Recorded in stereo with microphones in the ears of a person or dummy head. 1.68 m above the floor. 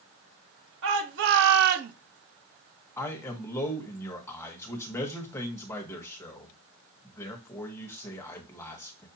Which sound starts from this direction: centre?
A man speaking, at 3.0 s.